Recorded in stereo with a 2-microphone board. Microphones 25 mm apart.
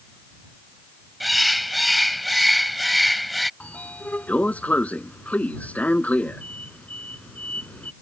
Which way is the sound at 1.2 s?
5° right (ahead or behind).